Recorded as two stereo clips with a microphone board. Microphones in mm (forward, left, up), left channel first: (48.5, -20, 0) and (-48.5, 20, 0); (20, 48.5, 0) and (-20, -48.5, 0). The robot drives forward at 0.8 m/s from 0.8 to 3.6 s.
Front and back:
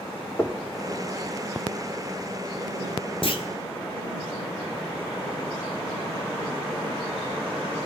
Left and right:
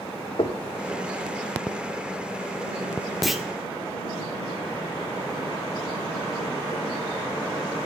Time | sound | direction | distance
0.4 | knocking | 45° left | 1.5 m
3.2 | a clunk | 25° right | 2.0 m